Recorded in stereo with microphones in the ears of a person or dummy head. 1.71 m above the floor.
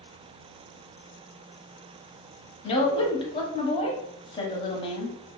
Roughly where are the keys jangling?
No keys jangling in this recording.